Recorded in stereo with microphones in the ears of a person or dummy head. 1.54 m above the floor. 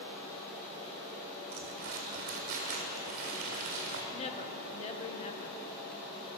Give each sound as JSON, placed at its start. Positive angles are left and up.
{"t": 1.5, "sound": "crumpling", "side_deg": -35, "distance_m": 2.0}
{"t": 4.1, "sound": "a woman speaking", "side_deg": 35, "distance_m": 1.3}